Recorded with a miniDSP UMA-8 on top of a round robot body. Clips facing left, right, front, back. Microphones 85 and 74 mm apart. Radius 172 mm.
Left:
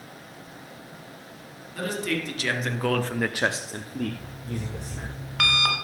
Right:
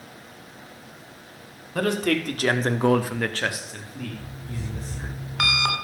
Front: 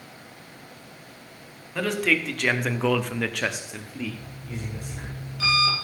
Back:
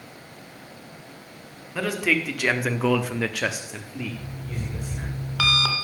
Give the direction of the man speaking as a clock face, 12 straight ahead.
3 o'clock.